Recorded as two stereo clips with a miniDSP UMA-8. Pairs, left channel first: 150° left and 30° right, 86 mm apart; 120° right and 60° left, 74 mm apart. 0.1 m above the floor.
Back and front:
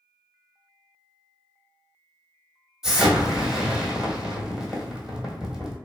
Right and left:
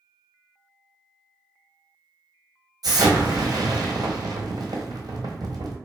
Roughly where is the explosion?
Ahead left.